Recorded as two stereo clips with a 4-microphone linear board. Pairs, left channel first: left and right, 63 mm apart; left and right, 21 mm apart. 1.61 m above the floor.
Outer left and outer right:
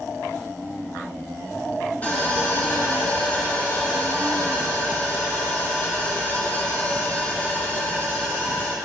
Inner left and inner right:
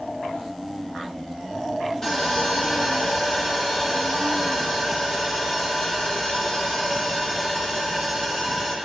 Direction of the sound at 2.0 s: 25° left (ahead or behind).